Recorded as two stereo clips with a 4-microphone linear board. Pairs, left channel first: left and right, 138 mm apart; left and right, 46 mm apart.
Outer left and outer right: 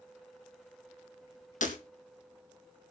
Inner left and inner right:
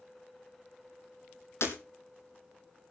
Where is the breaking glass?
70° left (ahead or behind), 2.5 m.